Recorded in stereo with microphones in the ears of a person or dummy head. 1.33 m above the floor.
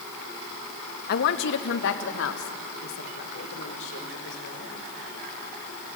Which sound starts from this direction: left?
A woman speaking, at 1.1 s.